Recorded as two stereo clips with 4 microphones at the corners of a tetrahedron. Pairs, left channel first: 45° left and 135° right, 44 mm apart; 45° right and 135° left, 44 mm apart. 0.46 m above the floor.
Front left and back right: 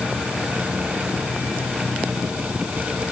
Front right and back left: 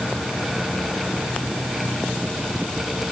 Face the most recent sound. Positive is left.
No sound to turn to.